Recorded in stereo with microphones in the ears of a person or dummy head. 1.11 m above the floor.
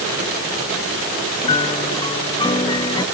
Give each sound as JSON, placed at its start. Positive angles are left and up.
{"t": 1.4, "sound": "a piano", "side_deg": 20}